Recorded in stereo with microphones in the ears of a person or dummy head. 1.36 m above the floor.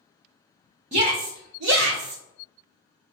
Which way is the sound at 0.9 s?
40° right (ahead or behind).